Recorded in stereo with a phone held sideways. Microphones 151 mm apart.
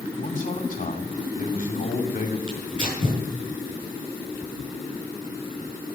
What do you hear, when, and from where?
0.2 s a man speaking: 60° left (ahead or behind), 2.5 m
2.5 s tearing paper: 35° right (ahead or behind), 6 m